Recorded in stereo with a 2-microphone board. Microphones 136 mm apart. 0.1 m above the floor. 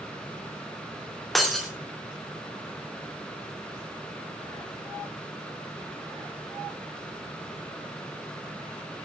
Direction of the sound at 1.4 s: Centre (ahead or behind).